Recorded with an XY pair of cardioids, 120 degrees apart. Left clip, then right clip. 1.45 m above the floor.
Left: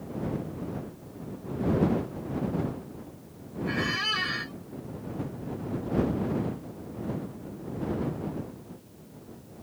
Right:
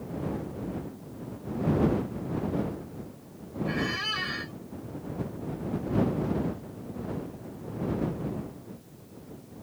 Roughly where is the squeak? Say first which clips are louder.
Left 2 dB; ahead.